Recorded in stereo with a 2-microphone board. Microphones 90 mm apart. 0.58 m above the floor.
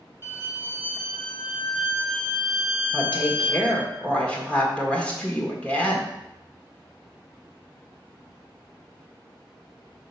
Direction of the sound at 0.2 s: 25° right (ahead or behind).